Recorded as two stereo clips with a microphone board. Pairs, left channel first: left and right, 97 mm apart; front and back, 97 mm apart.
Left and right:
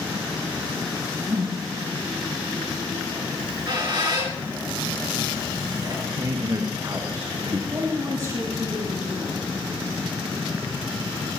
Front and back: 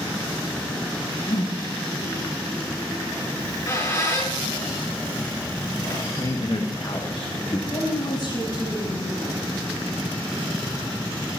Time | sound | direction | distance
1.3 | a whoosh | 25° right | 9.5 m
3.4 | a squeak | 55° right | 6 m
6.2 | a man speaking | 35° right | 1.4 m
7.7 | a woman speaking | 35° right | 9.5 m